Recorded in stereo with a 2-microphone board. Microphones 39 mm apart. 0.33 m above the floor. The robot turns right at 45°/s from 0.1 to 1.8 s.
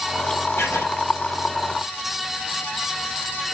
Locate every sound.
0.6 s writing: 85° left, 3.5 m; by 0.8 s 70° left (ahead or behind), 3.5 m